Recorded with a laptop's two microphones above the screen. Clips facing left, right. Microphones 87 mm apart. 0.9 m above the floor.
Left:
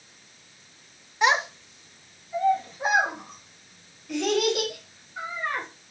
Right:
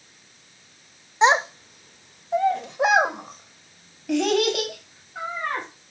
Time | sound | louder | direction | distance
1.2 | a child speaking | right 5 dB | 20° right (ahead or behind) | 0.6 m